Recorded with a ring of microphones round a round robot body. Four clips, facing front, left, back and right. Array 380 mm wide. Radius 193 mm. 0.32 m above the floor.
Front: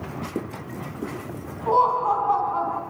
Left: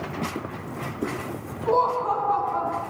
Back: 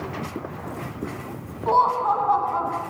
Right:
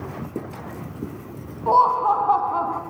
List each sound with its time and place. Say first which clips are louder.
1.7 s laughter: right 5 dB, even; 100° right, 4 m; by 2.8 s 90° right, 4.5 m